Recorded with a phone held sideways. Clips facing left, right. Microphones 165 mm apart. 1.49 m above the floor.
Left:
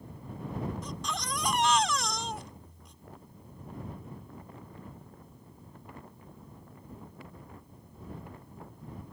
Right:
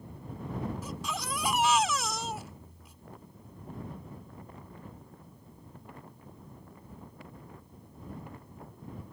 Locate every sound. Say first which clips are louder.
0.8 s a baby crying: even; 5° right (ahead or behind)